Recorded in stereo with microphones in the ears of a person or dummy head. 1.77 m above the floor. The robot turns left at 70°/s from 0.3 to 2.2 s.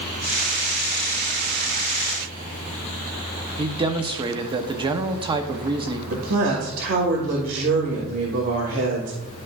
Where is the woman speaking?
60° right (ahead or behind), 2.5 m.